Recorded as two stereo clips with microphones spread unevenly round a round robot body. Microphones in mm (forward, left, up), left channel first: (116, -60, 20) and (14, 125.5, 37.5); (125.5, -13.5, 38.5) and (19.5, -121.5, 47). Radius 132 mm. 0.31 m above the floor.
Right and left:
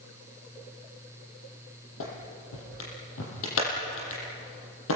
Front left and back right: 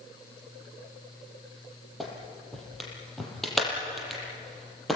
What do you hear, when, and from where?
2.0 s a clap: 45° right, 7 m